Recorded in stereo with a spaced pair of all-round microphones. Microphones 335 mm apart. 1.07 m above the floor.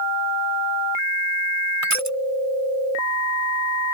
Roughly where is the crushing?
Right.